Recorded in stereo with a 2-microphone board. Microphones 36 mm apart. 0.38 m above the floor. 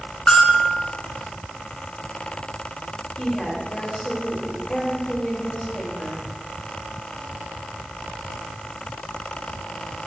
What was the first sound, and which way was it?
A bell, 35° left (ahead or behind).